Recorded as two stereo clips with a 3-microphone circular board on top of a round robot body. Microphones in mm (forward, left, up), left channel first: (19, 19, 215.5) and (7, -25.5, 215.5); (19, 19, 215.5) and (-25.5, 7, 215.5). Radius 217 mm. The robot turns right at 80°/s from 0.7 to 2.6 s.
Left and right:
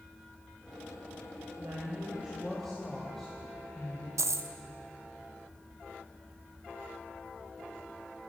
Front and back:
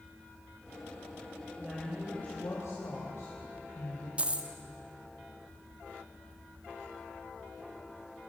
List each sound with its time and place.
1.6 s a woman speaking: 95° right, 4.5 m; by 4.1 s 10° right, 4.5 m
4.2 s a dropped coin: 100° right, 0.7 m